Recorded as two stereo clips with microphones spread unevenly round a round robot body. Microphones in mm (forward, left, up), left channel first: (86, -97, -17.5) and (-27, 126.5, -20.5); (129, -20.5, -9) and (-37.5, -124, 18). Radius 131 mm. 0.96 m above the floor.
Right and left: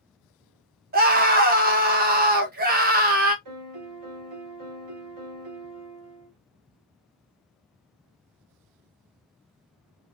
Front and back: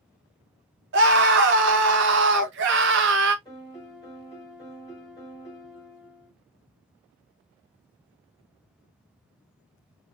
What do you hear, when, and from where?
0.9 s a scream: 170° left, 0.6 m
3.5 s a piano: 110° left, 0.9 m